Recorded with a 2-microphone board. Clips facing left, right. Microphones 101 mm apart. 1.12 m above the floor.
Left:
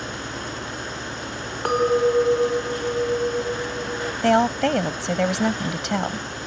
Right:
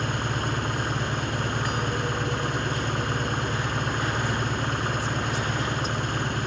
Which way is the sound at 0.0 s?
55° right (ahead or behind).